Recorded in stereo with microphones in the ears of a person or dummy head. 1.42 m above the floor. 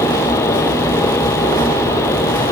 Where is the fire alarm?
No fire alarm in this recording.